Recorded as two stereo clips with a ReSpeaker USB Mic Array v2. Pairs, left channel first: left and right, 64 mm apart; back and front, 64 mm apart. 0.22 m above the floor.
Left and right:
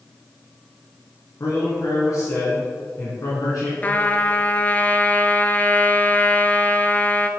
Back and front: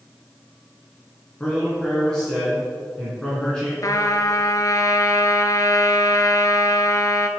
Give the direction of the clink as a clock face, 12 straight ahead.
No clink in this recording.